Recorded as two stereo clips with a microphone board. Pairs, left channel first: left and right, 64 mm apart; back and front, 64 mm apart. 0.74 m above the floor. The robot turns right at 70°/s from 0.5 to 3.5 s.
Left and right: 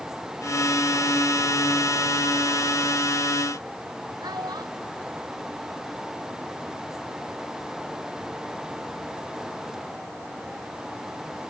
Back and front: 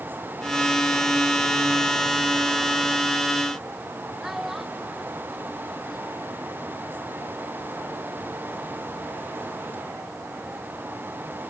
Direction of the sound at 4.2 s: 85° right.